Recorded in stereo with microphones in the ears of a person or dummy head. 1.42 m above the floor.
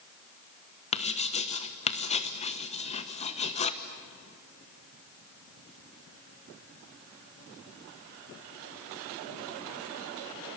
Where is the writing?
30° left (ahead or behind), 1.2 m.